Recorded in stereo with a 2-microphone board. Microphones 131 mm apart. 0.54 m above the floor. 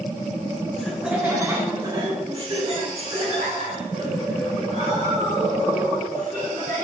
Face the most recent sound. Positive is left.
turn(degrees=-65)  # may be behind; listen again after turning